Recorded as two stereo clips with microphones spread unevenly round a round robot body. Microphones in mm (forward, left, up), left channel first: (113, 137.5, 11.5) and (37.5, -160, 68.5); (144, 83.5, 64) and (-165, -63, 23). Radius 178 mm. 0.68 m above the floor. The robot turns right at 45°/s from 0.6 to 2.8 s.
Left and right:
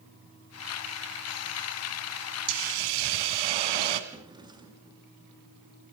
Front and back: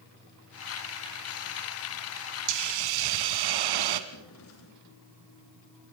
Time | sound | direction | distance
2.5 | a hiss | 145° right | 2.5 m
4.1 | a drawer | 30° right | 6 m